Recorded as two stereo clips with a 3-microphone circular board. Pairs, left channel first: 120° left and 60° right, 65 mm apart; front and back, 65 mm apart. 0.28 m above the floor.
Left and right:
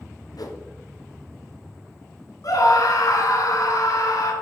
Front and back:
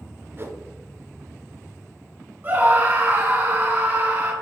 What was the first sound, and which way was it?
A whoosh, 130° left.